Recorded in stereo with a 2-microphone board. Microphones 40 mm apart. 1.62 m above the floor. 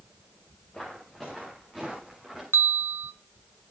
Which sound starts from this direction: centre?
Footsteps, at 0.7 s.